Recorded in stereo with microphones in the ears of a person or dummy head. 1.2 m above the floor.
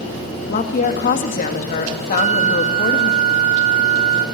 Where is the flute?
40° right (ahead or behind), 1.7 m.